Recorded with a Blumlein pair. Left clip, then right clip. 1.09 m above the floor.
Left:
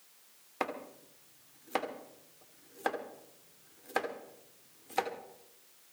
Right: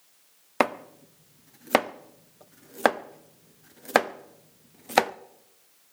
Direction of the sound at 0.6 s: 45° right.